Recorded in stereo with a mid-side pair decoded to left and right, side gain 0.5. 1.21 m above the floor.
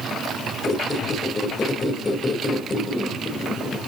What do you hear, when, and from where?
0.6 s a squeak: 30° left, 3 m